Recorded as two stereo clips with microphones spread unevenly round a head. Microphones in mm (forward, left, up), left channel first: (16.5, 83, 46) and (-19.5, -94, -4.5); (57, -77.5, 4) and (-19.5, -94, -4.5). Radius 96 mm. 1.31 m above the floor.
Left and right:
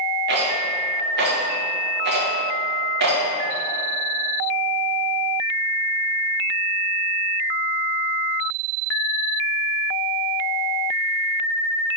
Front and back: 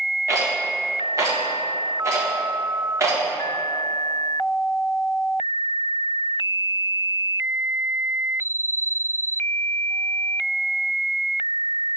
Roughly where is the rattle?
Behind right.